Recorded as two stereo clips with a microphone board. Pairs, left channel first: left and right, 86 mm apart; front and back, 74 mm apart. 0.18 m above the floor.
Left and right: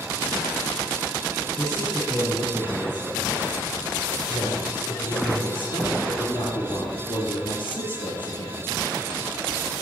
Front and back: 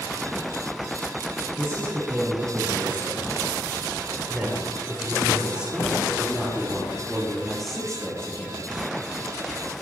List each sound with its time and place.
1.6 s a man speaking: 130° left, 5 m; by 8.7 s 75° left, 3 m